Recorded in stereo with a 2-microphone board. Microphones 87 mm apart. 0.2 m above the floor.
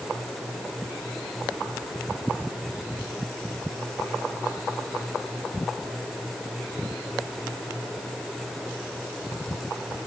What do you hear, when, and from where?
Only background noise.